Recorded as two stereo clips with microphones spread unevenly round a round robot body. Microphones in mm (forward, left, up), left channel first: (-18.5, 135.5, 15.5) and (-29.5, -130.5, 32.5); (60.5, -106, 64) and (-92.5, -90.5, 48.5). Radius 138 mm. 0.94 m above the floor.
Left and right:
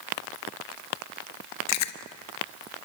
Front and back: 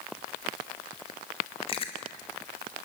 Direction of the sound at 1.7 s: 60° left.